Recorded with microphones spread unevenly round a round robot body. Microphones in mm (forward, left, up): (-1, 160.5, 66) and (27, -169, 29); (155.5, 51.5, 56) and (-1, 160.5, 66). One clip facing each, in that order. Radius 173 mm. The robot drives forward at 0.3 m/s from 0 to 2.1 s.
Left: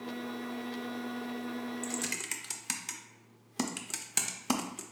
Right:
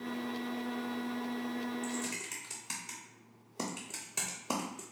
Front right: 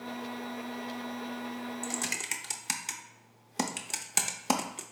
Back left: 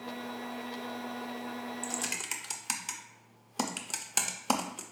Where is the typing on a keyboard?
35° left, 0.6 m; by 4.8 s 45° left, 0.5 m.